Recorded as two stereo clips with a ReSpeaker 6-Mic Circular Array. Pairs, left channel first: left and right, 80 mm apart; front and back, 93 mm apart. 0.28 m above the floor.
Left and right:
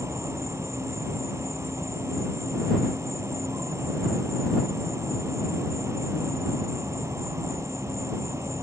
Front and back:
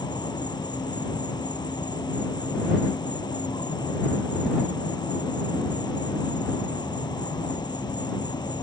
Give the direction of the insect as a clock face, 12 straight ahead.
1 o'clock.